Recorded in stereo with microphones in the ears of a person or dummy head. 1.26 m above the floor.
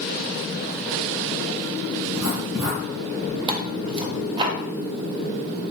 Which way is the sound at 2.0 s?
15° right (ahead or behind).